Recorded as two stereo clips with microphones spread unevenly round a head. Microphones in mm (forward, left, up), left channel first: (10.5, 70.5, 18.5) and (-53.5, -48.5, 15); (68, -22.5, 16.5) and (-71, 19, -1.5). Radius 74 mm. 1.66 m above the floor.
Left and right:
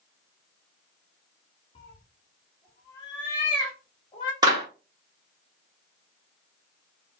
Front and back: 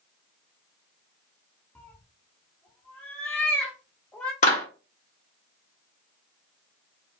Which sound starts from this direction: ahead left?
A cat meowing, at 1.8 s.